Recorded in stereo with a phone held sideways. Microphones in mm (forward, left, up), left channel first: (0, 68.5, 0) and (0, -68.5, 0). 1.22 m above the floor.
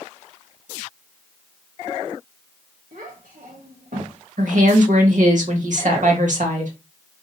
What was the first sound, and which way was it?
A child speaking, 75° right (ahead or behind).